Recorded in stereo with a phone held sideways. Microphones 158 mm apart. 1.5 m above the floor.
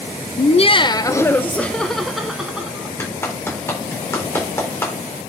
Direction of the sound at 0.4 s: 50° left (ahead or behind).